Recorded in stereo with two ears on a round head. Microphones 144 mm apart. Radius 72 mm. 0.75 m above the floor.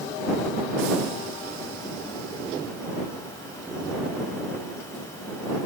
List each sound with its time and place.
Only background noise.